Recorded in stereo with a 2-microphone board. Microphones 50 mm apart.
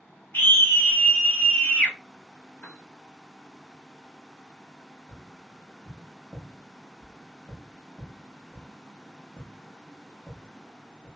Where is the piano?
35° left (ahead or behind), 0.8 m.